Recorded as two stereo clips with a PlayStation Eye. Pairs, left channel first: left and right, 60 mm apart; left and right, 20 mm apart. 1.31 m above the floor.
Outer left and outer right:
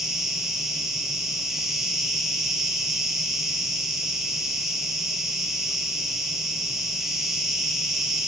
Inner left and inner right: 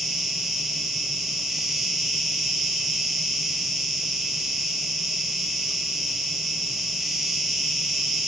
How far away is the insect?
About 1.1 m.